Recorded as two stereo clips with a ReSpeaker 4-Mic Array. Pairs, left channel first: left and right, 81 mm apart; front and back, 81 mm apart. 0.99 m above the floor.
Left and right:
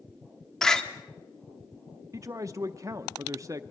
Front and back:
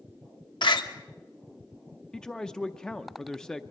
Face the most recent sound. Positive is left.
turn(degrees=-80)